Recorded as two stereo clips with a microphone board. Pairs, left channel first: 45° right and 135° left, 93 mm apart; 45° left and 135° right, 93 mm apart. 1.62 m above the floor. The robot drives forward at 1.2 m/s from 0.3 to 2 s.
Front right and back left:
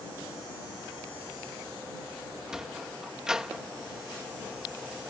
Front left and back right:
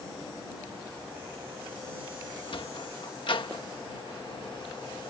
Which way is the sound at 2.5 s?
50° left.